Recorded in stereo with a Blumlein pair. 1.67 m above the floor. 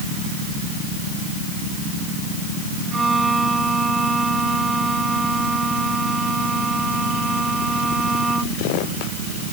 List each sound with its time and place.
2.9 s a violin: 10° right